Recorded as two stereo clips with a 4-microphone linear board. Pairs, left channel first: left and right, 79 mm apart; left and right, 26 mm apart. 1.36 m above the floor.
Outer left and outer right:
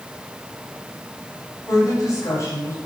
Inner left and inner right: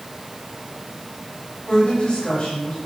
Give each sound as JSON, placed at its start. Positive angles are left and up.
{"t": 1.7, "sound": "a woman speaking", "side_deg": 45, "distance_m": 8.0}